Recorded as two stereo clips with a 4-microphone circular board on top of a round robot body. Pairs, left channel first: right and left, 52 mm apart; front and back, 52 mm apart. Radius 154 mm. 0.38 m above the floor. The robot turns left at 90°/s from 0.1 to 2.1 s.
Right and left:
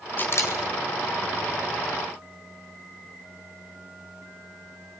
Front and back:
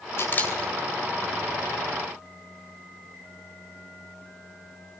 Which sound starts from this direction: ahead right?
A camera shutter, at 0.2 s.